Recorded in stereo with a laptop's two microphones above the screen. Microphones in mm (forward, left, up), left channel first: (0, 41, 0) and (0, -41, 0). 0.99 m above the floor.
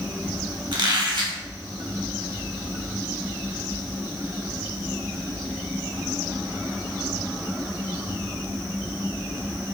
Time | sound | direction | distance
0.7 | a squeak | 70° right (ahead or behind) | 1.8 m